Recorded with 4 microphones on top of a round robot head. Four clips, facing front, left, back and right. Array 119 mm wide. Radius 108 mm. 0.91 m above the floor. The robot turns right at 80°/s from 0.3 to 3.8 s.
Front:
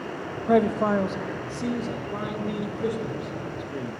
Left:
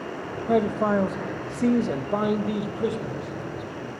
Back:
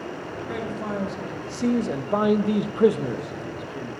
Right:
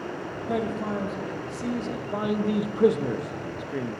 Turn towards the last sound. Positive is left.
turn(degrees=-75)